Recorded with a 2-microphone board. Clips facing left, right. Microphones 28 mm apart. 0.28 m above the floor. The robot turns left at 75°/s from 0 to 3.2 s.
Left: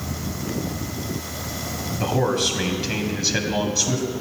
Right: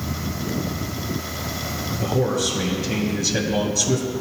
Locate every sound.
2.0 s a man speaking: 120° left, 1.7 m; by 4.1 s 25° left, 1.7 m